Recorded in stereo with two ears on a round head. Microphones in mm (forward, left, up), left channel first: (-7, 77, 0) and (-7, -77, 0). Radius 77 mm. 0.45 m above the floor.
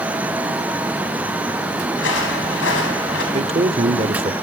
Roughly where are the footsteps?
Left.